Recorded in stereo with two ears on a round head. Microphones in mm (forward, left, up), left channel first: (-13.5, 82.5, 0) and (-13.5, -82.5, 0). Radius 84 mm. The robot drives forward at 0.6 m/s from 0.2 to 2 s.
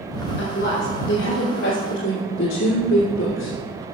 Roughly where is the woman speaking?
Left.